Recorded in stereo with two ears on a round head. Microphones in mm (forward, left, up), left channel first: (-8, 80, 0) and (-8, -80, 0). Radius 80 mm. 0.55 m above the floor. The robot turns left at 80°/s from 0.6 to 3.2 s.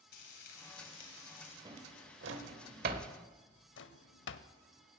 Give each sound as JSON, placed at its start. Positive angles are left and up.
{"t": 0.1, "sound": "frying", "azimuth_deg": 110, "distance_m": 2.5}
{"t": 1.6, "sound": "a drawer", "side_deg": -25, "distance_m": 1.0}
{"t": 3.8, "sound": "a drawer", "side_deg": 75, "distance_m": 0.6}